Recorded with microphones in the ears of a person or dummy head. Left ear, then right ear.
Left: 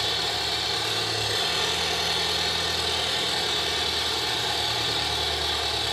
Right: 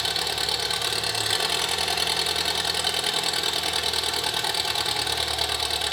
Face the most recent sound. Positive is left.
turn(degrees=-45)  # may be behind; listen again after turning